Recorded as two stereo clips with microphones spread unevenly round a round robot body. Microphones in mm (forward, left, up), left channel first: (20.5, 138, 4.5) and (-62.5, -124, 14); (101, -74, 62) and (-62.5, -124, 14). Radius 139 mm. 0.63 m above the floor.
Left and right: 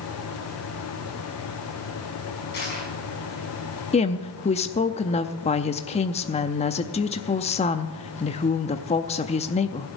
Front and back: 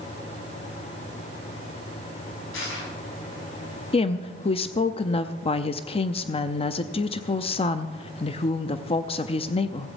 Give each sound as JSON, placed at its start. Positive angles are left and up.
{"t": 2.5, "sound": "crushing", "azimuth_deg": 15, "distance_m": 6.0}
{"t": 3.9, "sound": "a woman speaking", "azimuth_deg": 65, "distance_m": 0.5}